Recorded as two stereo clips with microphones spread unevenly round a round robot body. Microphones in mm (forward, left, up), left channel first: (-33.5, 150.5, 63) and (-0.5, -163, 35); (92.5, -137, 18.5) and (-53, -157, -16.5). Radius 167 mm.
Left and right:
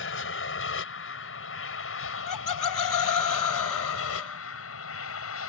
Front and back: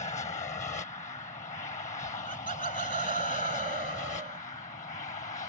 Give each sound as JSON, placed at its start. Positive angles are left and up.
{"t": 0.0, "sound": "an aircraft", "azimuth_deg": 60}
{"t": 2.0, "sound": "laughter", "azimuth_deg": 120}